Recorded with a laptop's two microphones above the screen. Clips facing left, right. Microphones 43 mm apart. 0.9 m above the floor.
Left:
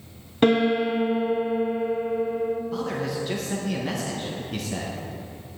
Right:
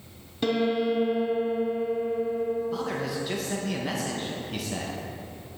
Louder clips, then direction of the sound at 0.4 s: Left 5 dB; 50° left (ahead or behind).